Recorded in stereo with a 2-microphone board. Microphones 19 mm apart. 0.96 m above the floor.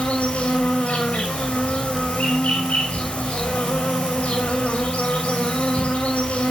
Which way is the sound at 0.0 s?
75° left (ahead or behind).